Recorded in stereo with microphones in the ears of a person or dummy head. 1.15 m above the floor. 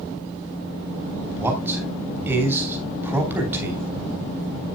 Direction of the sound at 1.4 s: 10° right (ahead or behind).